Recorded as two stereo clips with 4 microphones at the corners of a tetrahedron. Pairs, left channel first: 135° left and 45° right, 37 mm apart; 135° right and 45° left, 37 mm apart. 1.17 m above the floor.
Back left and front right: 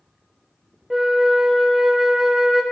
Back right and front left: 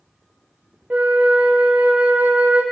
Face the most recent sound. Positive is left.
turn(degrees=30)